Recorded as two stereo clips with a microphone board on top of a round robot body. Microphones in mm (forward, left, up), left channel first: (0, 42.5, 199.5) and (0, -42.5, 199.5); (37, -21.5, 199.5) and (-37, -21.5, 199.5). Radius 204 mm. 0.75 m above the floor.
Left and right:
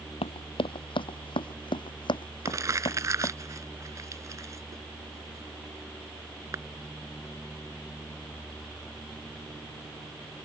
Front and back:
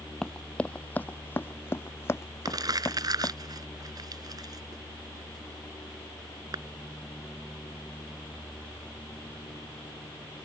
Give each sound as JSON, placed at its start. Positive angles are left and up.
{"t": 0.2, "sound": "running footsteps", "azimuth_deg": 80}
{"t": 2.5, "sound": "crumpling", "azimuth_deg": -145}